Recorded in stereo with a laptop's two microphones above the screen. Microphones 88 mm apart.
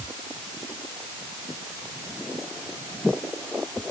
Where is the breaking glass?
No breaking glass in this recording.